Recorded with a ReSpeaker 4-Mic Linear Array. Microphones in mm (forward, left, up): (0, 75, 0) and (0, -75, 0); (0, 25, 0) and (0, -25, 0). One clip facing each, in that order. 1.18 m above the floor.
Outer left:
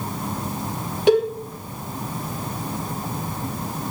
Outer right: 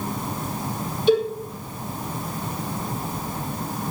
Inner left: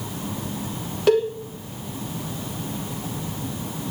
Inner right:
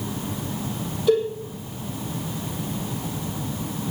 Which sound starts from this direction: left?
A cowbell, at 1.1 s.